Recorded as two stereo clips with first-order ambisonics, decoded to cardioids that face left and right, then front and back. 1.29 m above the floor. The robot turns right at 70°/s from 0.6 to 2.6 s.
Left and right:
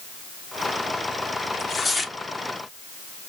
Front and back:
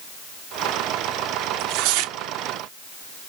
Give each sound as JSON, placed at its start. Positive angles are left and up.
{"t": 1.5, "sound": "tearing paper", "azimuth_deg": 150, "distance_m": 0.6}